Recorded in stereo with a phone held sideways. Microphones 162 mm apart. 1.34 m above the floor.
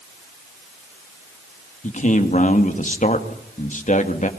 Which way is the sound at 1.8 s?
50° left (ahead or behind).